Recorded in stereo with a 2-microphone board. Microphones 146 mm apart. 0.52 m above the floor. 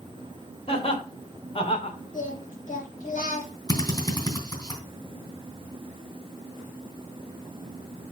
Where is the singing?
65° left (ahead or behind), 3.5 m.